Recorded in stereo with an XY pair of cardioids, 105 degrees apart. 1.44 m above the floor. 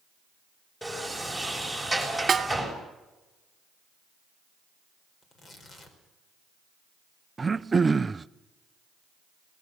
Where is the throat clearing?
20° right, 0.6 m.